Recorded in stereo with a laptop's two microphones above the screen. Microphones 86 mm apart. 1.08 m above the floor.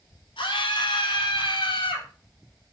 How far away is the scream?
About 3.5 m.